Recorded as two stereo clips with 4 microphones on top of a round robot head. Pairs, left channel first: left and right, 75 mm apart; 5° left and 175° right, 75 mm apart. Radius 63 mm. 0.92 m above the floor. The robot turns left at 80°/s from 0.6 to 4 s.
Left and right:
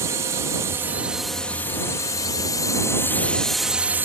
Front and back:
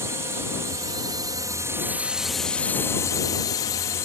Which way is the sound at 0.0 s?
130° right.